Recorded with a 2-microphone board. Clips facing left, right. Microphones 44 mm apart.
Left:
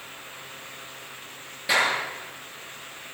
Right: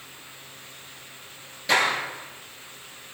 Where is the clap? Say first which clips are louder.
Right 1 dB; 10° left (ahead or behind), 8.5 m.